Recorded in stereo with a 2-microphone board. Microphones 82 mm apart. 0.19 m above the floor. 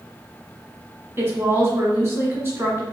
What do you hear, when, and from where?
1.2 s a woman speaking: 30° right (ahead or behind), 1.1 m